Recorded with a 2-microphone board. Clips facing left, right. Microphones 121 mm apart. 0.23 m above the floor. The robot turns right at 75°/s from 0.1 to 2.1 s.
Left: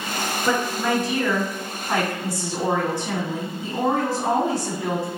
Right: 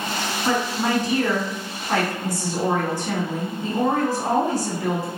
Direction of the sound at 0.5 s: 90° right.